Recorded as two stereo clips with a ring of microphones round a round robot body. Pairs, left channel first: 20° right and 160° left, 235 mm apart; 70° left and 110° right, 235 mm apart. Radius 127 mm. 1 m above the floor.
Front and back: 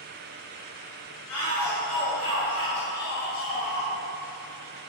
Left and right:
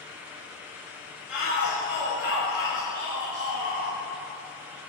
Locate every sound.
1.3 s a shout: 30° right, 3.5 m; by 3.9 s 70° right, 1.5 m